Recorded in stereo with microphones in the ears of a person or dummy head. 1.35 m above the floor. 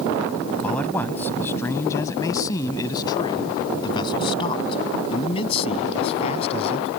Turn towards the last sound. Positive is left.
turn(degrees=35)  # may be behind; listen again after turning